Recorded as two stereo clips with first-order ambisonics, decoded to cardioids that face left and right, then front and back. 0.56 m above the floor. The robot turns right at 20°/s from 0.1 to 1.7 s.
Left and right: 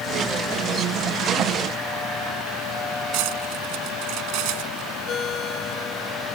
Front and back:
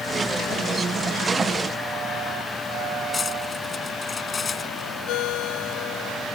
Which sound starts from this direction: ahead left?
A ringtone, at 5.1 s.